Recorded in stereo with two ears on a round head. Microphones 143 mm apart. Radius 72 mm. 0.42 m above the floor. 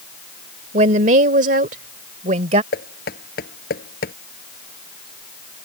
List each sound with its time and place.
0.7 s a woman speaking: 45° right (ahead or behind); by 2.6 s 40° right (ahead or behind)
2.7 s knocking: 65° left (ahead or behind)